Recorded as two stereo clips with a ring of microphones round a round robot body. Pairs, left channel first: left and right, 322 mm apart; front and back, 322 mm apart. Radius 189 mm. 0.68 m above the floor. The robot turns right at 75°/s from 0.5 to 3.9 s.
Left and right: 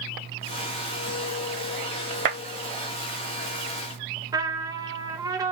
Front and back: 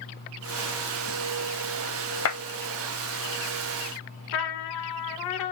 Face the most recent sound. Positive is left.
turn(degrees=-10)